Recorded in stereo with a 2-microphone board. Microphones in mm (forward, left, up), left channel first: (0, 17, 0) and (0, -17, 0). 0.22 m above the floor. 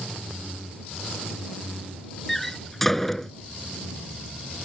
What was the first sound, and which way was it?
A door slam, 10° left (ahead or behind).